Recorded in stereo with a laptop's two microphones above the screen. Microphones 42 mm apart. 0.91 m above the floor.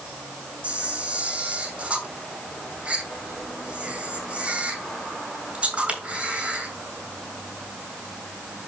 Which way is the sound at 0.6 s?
25° right (ahead or behind).